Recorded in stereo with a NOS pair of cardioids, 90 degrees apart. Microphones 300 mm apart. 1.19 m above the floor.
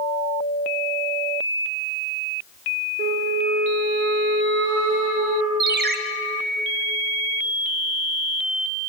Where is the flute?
55° right, 2.5 m.